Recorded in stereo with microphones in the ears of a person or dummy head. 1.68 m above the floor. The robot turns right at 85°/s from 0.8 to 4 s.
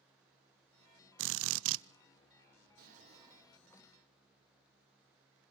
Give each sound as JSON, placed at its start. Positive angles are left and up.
{"t": 1.2, "sound": "a drill", "azimuth_deg": -115, "distance_m": 0.8}
{"t": 2.8, "sound": "a drawer", "azimuth_deg": -65, "distance_m": 1.5}